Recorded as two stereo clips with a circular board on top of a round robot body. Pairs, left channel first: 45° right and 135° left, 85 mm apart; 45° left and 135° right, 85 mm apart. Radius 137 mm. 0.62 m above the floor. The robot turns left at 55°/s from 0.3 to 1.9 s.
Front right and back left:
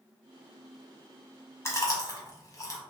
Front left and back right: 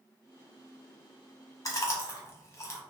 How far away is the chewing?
About 0.9 m.